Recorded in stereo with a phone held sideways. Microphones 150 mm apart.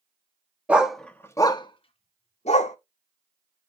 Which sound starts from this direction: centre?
A dog barking, at 0.7 s.